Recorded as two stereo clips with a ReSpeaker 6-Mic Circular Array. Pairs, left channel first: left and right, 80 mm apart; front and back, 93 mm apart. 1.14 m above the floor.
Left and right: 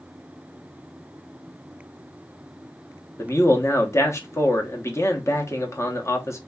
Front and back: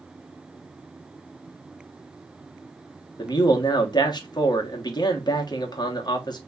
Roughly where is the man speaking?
Ahead left.